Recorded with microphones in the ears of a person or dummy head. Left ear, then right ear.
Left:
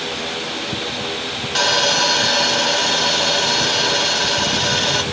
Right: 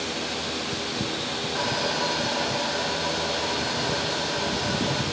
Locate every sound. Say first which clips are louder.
1.6 s sawing: left 12 dB; 80° left, 1.0 m